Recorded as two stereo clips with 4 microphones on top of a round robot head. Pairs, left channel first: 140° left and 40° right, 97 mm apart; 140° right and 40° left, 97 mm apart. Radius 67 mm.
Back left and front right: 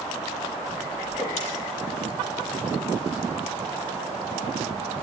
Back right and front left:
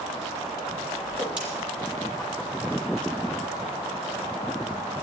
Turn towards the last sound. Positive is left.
turn(degrees=120)